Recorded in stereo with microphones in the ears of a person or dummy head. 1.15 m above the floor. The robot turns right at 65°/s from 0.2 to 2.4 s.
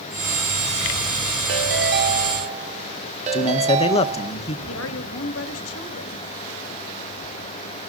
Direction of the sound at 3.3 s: 30° left (ahead or behind).